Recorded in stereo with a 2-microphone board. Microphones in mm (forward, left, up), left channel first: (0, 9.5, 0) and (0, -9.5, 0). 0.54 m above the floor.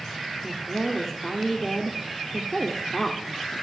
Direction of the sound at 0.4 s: 20° left (ahead or behind).